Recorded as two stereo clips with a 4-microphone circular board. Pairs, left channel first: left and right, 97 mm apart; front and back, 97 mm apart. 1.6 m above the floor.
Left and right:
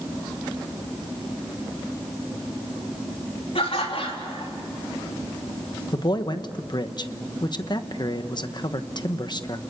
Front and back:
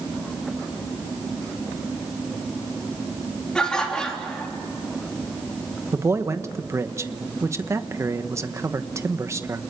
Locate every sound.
3.5 s laughter: 80° left, 4 m
5.9 s a man speaking: 125° left, 1.1 m